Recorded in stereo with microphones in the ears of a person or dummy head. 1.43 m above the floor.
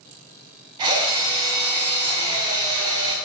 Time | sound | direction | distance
0.8 | a drill | 35° right (ahead or behind) | 4.5 m